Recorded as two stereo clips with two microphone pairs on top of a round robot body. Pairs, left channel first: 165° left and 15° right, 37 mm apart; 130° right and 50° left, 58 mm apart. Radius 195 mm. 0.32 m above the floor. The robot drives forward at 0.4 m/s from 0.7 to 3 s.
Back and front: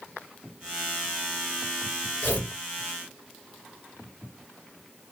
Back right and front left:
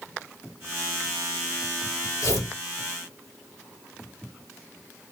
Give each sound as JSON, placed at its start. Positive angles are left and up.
{"t": 2.2, "sound": "tearing paper", "azimuth_deg": -150, "distance_m": 3.0}